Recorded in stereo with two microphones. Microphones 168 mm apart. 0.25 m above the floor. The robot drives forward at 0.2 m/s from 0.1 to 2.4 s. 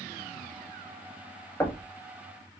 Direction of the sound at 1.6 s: 15° left (ahead or behind).